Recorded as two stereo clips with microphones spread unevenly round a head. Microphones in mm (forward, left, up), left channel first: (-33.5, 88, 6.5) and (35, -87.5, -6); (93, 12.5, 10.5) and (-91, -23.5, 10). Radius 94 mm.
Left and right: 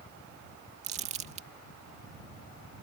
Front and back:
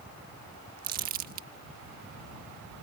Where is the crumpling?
125° right.